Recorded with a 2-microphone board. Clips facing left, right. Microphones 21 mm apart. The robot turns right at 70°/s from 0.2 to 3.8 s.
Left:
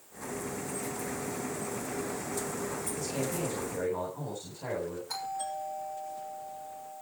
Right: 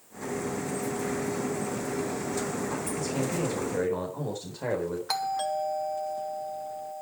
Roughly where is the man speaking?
Behind.